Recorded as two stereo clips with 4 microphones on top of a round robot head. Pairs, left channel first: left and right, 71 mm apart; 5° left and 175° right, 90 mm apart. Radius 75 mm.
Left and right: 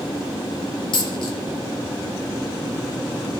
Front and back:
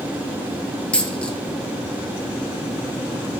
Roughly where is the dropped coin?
Left.